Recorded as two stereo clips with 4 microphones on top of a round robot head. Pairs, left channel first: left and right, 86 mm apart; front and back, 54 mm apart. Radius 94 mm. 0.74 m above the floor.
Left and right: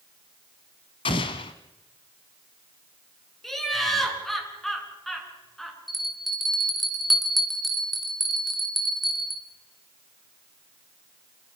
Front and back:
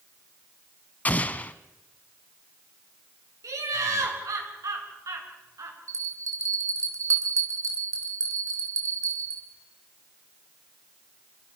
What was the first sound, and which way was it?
An explosion, 55° left.